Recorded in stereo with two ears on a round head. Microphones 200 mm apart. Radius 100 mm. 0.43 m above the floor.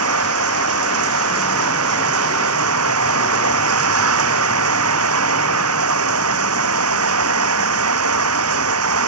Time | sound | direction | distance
0.0 | running water | 80° right | ?